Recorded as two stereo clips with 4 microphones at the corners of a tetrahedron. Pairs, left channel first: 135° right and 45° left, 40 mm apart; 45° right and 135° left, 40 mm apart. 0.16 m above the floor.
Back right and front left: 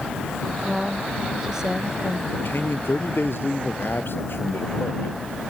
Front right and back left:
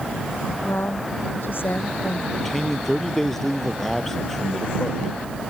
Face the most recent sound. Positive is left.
turn(degrees=-125)